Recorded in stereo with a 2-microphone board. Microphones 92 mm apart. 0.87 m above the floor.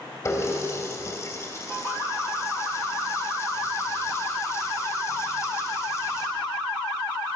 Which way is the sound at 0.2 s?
35° left (ahead or behind).